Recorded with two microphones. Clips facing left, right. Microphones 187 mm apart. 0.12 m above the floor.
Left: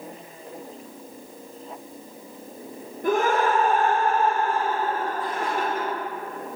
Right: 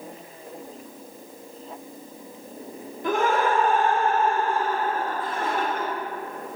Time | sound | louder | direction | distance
3.0 | laughter | left 1 dB | 50° left (ahead or behind) | 2 m